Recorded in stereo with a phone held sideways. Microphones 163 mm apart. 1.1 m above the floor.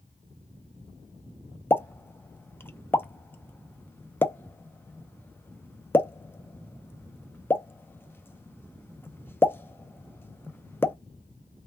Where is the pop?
15° left (ahead or behind), 0.5 m.